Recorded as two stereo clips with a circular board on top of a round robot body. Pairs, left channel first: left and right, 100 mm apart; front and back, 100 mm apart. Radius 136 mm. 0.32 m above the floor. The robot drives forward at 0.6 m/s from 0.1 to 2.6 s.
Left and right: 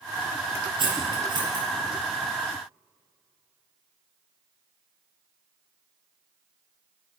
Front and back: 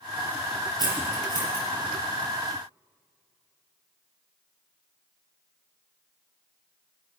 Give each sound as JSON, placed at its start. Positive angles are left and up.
{"t": 0.8, "sound": "cutlery clinking", "azimuth_deg": -130, "distance_m": 6.0}